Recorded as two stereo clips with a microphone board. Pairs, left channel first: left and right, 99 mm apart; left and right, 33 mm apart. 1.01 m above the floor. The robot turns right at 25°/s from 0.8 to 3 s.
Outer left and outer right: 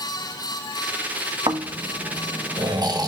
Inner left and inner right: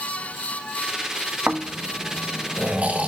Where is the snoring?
90° right, 1.2 m; by 3.1 s 50° right, 1.2 m.